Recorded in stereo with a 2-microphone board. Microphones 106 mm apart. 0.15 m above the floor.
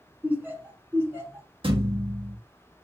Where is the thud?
55° right (ahead or behind), 1.1 m.